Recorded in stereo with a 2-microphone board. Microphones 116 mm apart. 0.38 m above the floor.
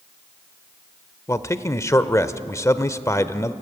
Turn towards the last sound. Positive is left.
turn(degrees=25)  # may be behind; listen again after turning